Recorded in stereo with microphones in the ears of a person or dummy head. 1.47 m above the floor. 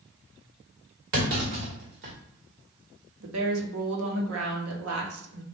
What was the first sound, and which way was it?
A clunk, 55° right (ahead or behind).